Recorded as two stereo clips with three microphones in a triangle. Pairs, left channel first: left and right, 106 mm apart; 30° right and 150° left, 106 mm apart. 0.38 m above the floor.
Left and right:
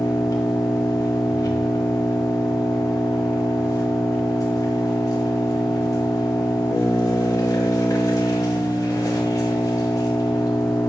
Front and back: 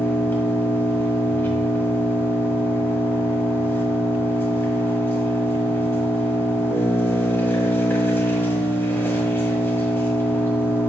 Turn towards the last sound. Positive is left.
turn(degrees=35)